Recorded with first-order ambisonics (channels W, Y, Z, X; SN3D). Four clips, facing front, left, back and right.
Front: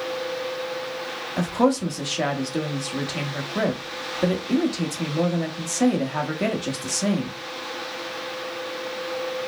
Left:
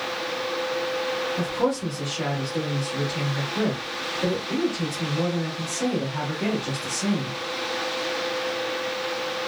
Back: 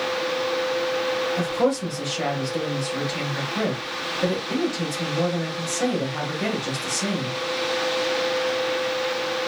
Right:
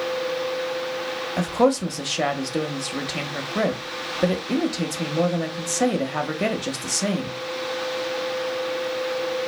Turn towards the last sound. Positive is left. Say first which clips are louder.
# right 9 dB, front 6 dB
turn(degrees=-65)